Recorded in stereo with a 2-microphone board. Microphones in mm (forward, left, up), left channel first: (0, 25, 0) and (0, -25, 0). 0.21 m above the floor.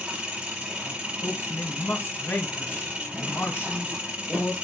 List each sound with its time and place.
0.0 s an engine running: 25° right (ahead or behind), 3 m
1.2 s a man speaking: 50° left (ahead or behind), 2.5 m